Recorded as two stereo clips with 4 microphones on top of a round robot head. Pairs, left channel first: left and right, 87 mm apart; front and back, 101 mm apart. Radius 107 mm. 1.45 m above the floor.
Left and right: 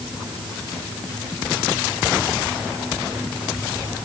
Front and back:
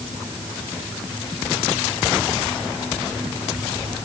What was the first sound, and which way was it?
Only background noise.